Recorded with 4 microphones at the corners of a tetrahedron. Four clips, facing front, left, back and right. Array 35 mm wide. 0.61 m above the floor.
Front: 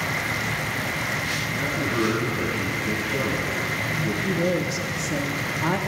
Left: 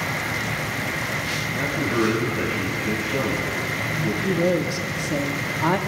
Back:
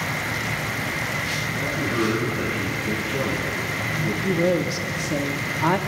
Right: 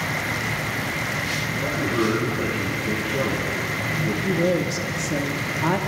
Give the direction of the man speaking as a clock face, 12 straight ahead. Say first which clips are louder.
Left 1 dB, even; 9 o'clock.